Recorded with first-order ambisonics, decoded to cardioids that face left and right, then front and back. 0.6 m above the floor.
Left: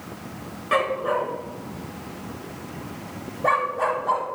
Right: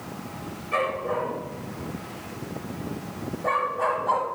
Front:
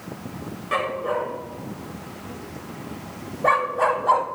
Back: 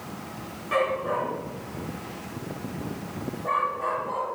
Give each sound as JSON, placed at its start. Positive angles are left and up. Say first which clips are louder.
{"t": 0.7, "sound": "a dog barking", "louder": "left 4 dB, front 1 dB", "azimuth_deg": 75, "distance_m": 2.5}